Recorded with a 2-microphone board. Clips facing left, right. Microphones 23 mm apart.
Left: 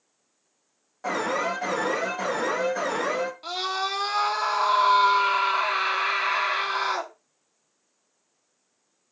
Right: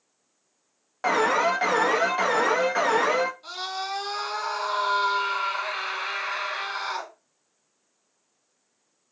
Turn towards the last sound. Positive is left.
turn(degrees=40)  # may be behind; listen again after turning